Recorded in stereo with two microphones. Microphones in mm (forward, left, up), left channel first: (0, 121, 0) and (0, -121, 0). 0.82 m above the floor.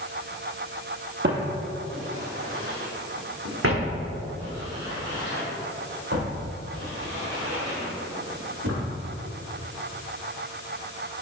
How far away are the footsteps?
About 1.4 m.